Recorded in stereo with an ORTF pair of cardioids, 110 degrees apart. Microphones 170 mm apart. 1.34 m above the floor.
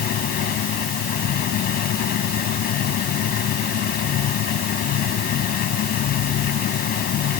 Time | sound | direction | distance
0.0 | a machine running | 60° left | ?